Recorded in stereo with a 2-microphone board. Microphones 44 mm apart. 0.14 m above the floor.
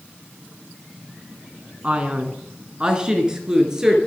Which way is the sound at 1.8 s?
25° right (ahead or behind).